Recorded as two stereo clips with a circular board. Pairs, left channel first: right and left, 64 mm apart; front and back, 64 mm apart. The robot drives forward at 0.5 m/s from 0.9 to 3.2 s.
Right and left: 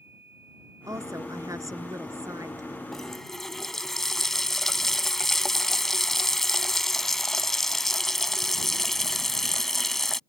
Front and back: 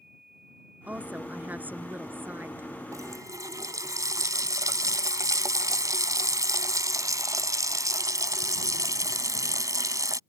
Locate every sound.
0.9 s a woman speaking: 115° left; by 2.8 s 125° left
2.9 s a running tap: 175° right